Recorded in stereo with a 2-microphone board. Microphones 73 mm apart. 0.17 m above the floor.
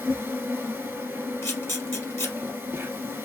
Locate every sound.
0.0 s an insect: 35° right (ahead or behind), 1.4 m
1.4 s a camera shutter: 35° left (ahead or behind), 1.6 m